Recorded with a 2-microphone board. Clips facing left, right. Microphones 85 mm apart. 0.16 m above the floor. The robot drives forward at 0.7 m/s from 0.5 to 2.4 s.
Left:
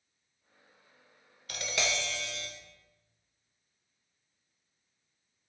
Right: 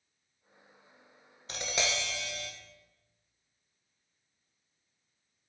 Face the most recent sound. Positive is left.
turn(degrees=-15)  # may be behind; listen again after turning